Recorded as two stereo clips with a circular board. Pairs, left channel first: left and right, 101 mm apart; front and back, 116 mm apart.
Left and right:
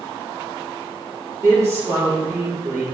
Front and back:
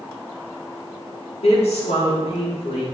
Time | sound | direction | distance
1.4 | a woman speaking | 30° right | 5 m